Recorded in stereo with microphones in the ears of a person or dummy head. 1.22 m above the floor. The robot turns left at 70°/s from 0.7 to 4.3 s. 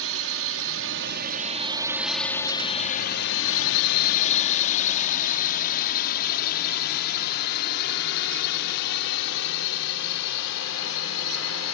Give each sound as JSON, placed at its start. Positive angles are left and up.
{"t": 0.0, "sound": "a drone", "side_deg": -70}